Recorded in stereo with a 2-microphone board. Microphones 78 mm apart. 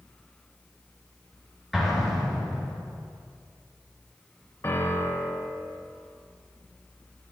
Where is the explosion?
Centre (ahead or behind), 3.5 m.